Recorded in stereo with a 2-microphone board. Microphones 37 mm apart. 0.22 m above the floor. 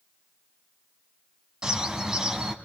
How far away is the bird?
About 2 m.